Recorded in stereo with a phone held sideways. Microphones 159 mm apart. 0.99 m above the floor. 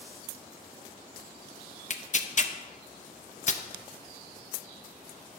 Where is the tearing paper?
50° left (ahead or behind), 0.6 m.